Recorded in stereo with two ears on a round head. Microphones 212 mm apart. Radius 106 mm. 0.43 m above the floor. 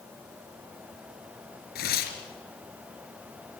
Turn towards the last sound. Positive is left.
turn(degrees=40)  # may be behind; listen again after turning